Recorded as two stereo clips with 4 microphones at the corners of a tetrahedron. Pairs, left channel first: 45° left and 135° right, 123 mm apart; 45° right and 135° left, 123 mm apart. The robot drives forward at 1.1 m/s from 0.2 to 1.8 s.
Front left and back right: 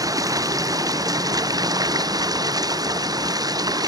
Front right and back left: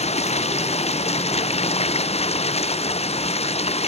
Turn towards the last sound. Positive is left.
turn(degrees=-75)